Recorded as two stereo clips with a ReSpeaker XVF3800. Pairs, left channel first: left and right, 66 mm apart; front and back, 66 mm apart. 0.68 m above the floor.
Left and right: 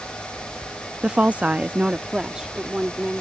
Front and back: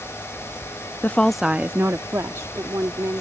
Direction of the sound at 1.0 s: 30° right.